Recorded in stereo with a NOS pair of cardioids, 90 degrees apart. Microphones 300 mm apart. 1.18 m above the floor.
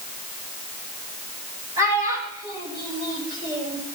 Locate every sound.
1.8 s a child speaking: 10° right, 4.5 m; by 3.8 s 35° right, 3.5 m